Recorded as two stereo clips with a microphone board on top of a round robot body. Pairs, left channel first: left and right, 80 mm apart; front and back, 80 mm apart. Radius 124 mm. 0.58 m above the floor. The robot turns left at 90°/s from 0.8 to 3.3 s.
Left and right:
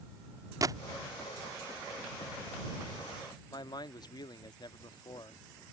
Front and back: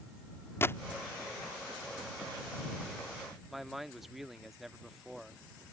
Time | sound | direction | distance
0.6 | a gunshot | 55° right | ?
3.5 | a man speaking | 90° left | ?